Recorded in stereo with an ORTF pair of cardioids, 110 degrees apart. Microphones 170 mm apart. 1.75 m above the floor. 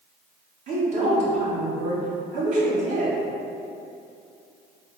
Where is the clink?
I don't hear a clink.